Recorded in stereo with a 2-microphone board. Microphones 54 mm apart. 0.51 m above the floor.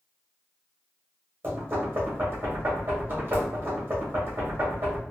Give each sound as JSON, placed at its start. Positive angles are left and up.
{"t": 1.4, "sound": "knocking", "side_deg": -45, "distance_m": 1.5}